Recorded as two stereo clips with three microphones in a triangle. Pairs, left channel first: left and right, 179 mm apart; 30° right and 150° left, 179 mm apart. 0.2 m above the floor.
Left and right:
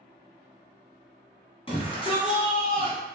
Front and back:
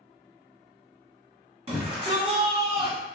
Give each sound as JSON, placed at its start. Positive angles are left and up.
{"t": 1.7, "sound": "a shout", "azimuth_deg": 125, "distance_m": 1.4}